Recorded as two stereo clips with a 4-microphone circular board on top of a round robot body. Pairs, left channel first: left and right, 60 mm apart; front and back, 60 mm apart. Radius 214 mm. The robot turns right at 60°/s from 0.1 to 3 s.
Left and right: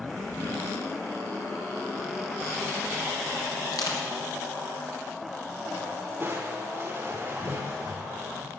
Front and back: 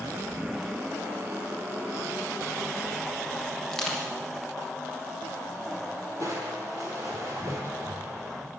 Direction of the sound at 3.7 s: 80° left.